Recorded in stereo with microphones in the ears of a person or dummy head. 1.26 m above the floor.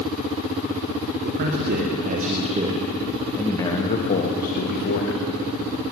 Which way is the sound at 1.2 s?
60° right (ahead or behind).